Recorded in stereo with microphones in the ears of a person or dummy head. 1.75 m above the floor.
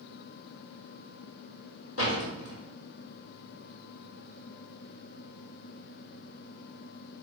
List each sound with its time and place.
2.0 s a door slam: 75° left (ahead or behind), 3.5 m